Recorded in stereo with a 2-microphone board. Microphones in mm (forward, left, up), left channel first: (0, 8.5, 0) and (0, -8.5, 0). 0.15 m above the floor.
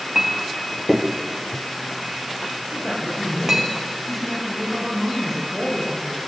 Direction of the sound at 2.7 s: 25° left (ahead or behind).